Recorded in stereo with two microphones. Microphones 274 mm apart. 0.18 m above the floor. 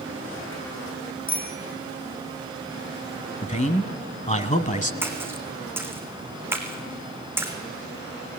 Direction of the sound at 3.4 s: 25° left (ahead or behind).